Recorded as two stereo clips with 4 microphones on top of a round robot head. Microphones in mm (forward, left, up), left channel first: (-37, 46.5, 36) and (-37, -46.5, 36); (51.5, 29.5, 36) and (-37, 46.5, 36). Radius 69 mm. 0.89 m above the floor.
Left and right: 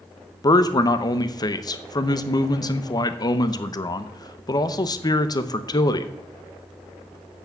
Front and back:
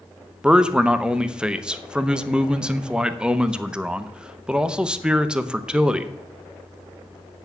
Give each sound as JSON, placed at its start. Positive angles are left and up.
{"t": 0.4, "sound": "a man speaking", "azimuth_deg": 95, "distance_m": 0.8}